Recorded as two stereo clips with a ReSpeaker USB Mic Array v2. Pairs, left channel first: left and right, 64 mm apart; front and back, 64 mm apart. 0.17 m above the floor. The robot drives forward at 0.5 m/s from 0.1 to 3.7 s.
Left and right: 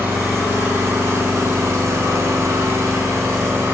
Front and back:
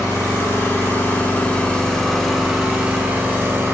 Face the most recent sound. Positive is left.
turn(degrees=-140)